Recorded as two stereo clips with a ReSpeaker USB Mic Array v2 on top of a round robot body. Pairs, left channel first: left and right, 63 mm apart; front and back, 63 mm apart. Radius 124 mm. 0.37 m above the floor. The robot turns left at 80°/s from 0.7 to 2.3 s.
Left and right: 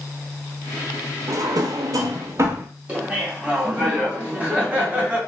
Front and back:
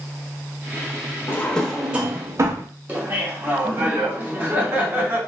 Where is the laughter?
145° right, 1.6 m.